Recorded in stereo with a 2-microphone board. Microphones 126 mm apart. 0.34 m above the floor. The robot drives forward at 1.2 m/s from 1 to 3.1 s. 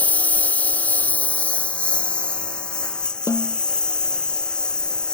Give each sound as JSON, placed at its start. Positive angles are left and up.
{"t": 0.0, "sound": "a lawn mower", "side_deg": 10}
{"t": 3.3, "sound": "a snare drum", "side_deg": 25}